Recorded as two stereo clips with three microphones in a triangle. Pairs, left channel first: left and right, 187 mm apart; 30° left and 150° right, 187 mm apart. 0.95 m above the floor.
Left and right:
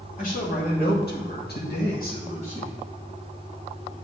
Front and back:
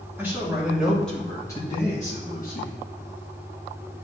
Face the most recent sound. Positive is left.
turn(degrees=30)